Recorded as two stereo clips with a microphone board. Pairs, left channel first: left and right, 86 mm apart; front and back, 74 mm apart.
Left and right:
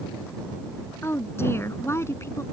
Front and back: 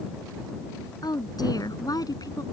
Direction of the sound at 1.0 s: 30° left.